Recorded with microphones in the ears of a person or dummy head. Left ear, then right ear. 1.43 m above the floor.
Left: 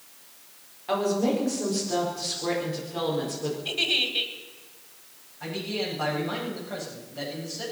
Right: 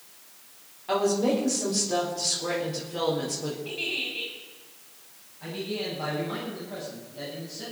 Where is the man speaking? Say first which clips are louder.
Left 2 dB; 55° left (ahead or behind), 8.5 m.